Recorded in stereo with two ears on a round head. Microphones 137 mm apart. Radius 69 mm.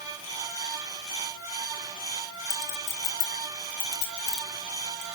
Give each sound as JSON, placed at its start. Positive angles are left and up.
{"t": 2.5, "sound": "a clink", "side_deg": 80, "distance_m": 5.0}